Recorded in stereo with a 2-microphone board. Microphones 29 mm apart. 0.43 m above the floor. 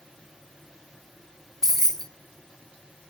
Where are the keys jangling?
15° left (ahead or behind), 0.6 m.